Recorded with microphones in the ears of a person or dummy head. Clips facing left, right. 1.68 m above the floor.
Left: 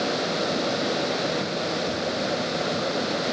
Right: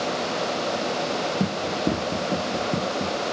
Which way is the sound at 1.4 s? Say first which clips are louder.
Right 2 dB; 70° right (ahead or behind).